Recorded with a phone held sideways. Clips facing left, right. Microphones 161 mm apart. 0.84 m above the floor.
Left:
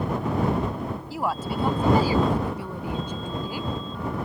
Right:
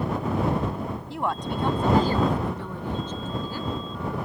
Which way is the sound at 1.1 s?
5° left (ahead or behind).